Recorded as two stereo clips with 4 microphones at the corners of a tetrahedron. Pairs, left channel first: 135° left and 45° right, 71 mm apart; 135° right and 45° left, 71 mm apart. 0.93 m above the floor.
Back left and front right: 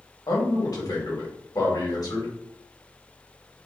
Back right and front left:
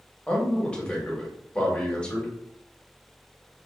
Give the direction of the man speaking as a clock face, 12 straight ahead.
7 o'clock.